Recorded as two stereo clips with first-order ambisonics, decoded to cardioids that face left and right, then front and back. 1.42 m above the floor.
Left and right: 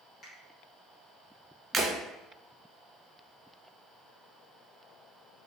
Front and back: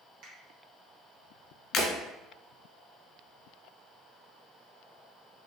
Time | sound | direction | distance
0.2 | a finger snap | 150° left | 1.5 m
1.7 | breaking glass | 40° right | 1.3 m